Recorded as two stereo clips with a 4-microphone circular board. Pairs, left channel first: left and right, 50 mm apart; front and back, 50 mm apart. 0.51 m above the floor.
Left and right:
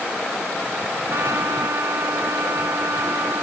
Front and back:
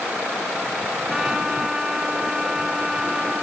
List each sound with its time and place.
1.1 s a trumpet: 105° right